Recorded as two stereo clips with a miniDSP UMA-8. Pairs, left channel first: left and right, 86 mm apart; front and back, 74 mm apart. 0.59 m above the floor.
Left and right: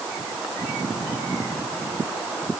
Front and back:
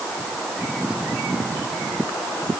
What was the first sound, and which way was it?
Only background noise.